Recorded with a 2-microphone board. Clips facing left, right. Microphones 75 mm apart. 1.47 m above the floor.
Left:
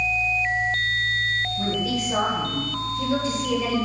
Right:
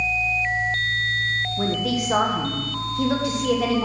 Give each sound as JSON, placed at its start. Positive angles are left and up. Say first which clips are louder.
{"t": 1.6, "sound": "a woman speaking", "louder": "right 2 dB", "side_deg": -65, "distance_m": 1.4}